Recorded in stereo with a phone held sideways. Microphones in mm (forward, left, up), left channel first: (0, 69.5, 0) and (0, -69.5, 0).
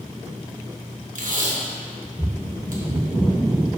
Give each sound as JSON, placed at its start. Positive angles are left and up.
{"t": 1.1, "sound": "tape being pulled", "side_deg": -70, "distance_m": 1.1}